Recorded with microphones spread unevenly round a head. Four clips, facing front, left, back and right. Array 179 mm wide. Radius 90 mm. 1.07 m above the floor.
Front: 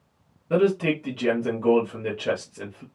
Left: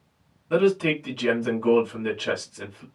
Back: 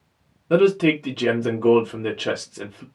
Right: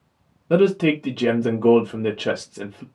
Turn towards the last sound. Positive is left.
turn(degrees=-110)